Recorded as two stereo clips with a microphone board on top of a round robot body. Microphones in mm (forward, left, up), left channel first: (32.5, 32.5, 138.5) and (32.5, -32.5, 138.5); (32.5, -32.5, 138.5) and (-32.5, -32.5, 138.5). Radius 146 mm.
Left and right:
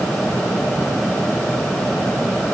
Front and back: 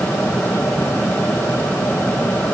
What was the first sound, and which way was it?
Only background noise.